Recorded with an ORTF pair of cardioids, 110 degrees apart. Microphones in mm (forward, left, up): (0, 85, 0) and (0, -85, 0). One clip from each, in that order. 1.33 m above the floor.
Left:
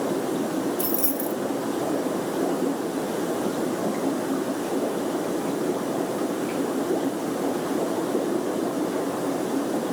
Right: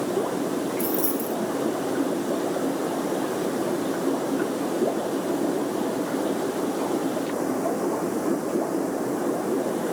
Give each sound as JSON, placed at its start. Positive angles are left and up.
{"t": 0.8, "sound": "keys jangling", "azimuth_deg": 25, "distance_m": 0.7}